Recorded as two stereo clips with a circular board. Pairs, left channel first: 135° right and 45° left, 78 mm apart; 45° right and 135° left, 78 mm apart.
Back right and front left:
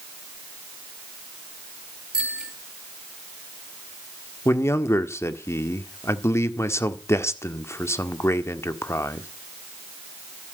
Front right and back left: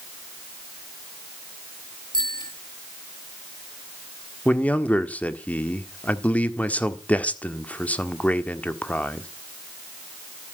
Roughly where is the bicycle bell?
Ahead right.